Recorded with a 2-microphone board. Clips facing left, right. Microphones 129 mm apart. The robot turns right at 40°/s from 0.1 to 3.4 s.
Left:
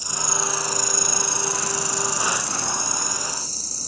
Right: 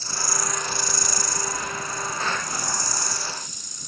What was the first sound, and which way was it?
An insect, 15° left.